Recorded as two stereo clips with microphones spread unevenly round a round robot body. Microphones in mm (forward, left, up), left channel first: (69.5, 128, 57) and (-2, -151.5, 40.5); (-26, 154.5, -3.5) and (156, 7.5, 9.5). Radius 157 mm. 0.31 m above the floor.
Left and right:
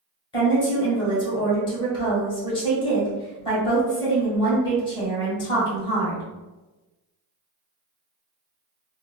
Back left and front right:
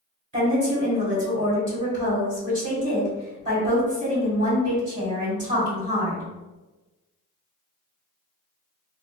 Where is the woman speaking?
5° left, 1.6 m.